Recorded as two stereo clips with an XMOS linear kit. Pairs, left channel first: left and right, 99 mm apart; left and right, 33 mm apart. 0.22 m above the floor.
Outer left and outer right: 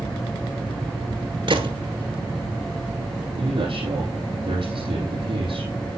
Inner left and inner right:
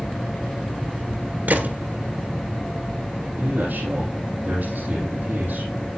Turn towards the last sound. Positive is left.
turn(degrees=-55)  # may be behind; listen again after turning